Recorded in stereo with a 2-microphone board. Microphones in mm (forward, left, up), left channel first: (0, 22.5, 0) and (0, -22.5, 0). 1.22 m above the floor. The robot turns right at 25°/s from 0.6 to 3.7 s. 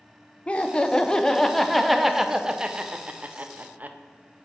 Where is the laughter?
150° left, 0.6 m; by 4.0 s 135° right, 0.6 m.